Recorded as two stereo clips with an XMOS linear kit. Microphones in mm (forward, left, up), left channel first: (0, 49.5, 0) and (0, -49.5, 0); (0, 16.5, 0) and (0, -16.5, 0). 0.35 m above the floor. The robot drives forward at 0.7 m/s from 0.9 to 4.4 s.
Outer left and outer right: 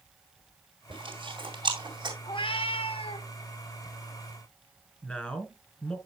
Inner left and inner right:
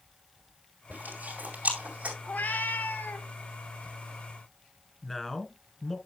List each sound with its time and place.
0.9 s chewing: 55° right (ahead or behind), 2.5 m; by 2.1 s 50° right (ahead or behind), 3 m
2.2 s a cat meowing: 55° left (ahead or behind), 0.8 m
5.0 s a man speaking: 15° left (ahead or behind), 1.6 m